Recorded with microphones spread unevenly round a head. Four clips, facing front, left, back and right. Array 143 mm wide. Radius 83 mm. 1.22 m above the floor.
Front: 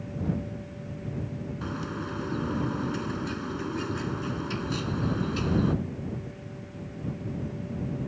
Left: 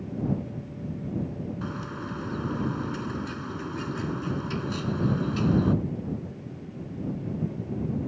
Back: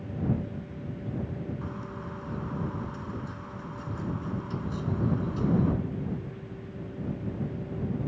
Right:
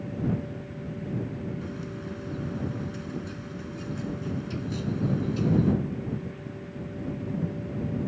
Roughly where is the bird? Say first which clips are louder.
Left 2 dB, front 4 dB; ahead.